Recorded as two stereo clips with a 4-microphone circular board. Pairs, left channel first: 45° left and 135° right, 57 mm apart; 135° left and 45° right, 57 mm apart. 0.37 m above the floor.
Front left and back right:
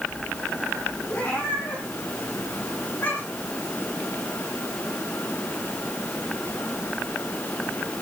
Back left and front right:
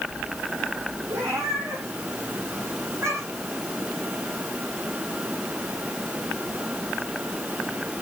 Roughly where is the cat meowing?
Ahead right.